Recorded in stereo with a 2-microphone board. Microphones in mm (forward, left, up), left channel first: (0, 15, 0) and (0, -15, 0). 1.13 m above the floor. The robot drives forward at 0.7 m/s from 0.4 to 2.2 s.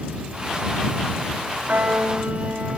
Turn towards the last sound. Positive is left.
turn(degrees=-80)